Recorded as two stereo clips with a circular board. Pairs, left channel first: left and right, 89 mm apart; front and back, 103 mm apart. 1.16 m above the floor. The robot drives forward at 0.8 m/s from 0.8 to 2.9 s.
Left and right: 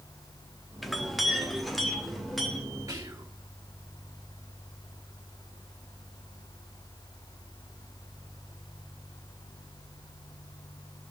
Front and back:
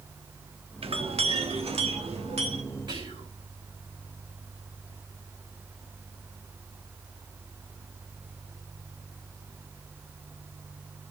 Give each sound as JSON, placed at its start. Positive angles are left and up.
{"t": 0.8, "sound": "a clink", "azimuth_deg": 180, "distance_m": 1.0}
{"t": 2.9, "sound": "whispering", "azimuth_deg": -140, "distance_m": 4.0}